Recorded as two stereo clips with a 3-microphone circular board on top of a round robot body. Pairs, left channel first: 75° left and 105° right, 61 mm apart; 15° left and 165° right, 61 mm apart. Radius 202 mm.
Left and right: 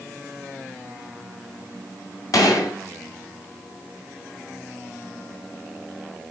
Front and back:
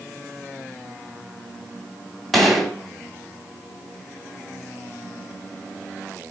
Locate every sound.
2.3 s a gunshot: 100° left, 2.5 m